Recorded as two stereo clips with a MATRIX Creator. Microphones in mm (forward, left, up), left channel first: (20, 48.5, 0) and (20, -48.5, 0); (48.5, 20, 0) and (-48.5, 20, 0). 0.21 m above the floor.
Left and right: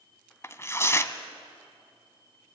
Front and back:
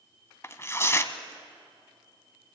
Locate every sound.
0.4 s tearing paper: 45° left, 1.0 m